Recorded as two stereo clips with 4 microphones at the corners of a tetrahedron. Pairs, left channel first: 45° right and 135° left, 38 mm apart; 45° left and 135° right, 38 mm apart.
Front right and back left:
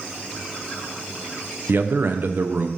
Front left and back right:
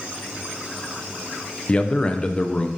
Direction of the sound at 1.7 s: 105° left.